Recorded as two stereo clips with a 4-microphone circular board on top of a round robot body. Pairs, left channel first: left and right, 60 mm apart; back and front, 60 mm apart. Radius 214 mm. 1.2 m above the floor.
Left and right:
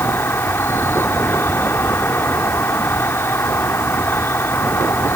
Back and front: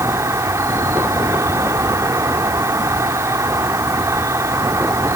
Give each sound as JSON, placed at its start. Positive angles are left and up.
{"t": 0.0, "sound": "an insect", "azimuth_deg": 35}